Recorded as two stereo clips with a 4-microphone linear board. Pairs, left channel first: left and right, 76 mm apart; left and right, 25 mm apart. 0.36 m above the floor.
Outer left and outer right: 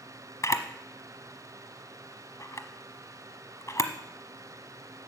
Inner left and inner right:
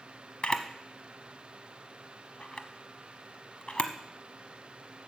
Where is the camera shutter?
45° left (ahead or behind), 0.9 m.